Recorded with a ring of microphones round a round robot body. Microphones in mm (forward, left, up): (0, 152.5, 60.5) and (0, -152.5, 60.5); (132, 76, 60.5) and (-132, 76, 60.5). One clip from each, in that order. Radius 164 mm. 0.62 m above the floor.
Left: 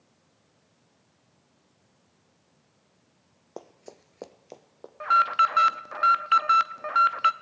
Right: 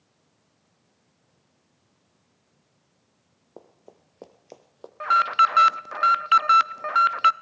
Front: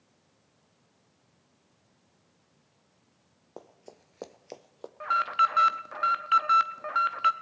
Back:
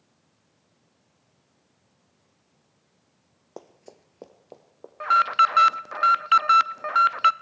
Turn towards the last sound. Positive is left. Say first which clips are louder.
# right 2 dB, back 6 dB
turn(degrees=-145)